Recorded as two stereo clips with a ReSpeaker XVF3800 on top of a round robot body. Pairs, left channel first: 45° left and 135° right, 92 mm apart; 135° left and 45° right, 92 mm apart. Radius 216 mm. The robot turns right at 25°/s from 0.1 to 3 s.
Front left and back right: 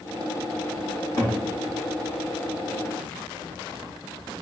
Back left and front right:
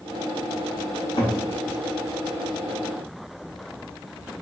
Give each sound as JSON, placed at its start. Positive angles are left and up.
{"t": 1.2, "sound": "a cupboard door", "azimuth_deg": 90, "distance_m": 1.4}